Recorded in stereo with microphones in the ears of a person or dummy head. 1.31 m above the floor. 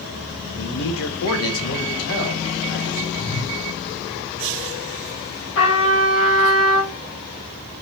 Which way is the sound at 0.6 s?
40° left (ahead or behind).